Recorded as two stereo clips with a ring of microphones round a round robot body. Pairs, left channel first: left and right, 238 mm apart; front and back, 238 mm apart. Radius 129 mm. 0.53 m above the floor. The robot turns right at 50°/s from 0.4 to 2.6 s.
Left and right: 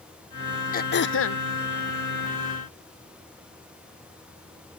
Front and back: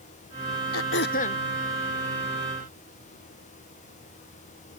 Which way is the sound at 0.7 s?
35° left.